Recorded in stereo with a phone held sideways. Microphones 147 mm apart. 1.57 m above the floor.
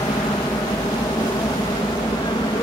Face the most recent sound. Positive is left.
turn(degrees=25)  # may be behind; listen again after turning